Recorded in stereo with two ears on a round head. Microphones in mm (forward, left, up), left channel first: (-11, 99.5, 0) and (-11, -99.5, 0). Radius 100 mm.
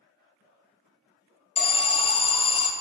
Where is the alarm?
25° left (ahead or behind), 0.6 m.